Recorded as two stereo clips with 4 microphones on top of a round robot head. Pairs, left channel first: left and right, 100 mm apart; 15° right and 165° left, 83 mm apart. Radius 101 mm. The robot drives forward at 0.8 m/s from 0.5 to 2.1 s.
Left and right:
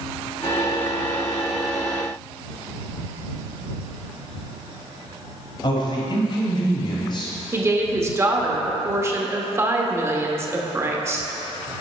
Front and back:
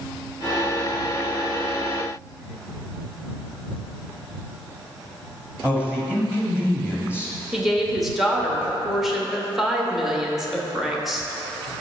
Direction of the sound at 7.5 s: 105° right.